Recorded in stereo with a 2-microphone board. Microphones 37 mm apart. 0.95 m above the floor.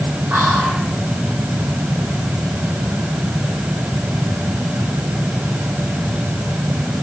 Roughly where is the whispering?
Right.